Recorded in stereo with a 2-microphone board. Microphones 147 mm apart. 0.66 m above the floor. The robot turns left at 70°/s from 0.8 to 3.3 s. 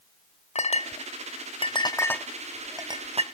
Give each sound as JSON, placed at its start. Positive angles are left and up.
{"t": 0.6, "sound": "a clink", "side_deg": 50, "distance_m": 0.8}